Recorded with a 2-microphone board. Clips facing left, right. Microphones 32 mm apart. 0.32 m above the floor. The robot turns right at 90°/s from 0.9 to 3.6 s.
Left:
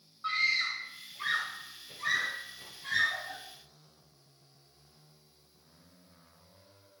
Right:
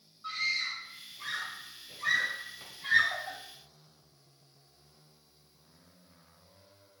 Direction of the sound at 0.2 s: 40° left (ahead or behind).